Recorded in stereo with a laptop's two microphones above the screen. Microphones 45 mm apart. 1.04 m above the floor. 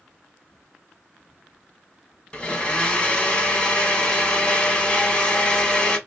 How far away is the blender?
About 1.6 m.